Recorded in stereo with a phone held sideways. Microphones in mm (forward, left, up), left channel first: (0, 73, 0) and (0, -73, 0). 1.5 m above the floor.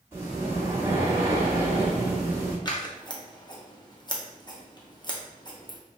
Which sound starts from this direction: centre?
Breathing, at 0.1 s.